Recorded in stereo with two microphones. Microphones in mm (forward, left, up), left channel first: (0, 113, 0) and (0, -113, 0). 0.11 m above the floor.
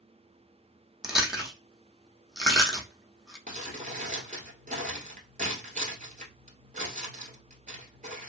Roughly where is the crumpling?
Right.